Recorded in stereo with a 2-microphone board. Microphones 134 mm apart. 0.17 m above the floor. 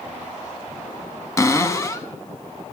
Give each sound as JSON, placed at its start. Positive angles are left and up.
{"t": 1.4, "sound": "a cupboard door", "side_deg": 25, "distance_m": 0.7}